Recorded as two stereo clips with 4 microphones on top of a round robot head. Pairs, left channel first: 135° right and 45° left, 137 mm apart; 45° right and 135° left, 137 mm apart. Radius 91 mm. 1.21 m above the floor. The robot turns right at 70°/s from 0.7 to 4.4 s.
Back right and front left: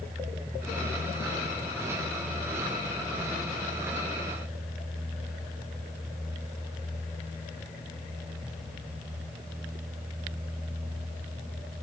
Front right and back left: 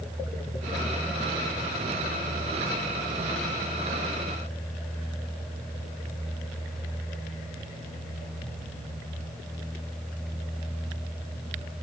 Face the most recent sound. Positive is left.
No sound to turn to.